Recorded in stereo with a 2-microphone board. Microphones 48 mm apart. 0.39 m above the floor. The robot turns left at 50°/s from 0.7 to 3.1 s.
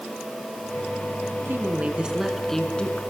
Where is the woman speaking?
135° right, 5.5 m; by 3.0 s 150° left, 5.5 m.